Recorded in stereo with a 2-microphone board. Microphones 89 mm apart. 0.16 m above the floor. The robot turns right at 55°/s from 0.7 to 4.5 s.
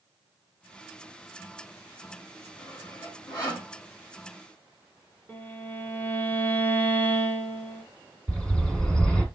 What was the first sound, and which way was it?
Sawing, 35° left (ahead or behind).